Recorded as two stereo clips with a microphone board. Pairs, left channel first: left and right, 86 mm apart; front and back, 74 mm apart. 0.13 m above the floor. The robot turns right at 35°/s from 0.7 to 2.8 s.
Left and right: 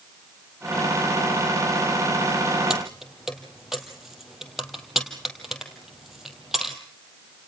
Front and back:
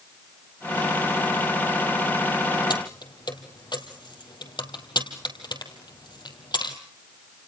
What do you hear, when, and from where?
2.7 s keys jangling: 10° right, 2.5 m; by 6.8 s 5° right, 2.5 m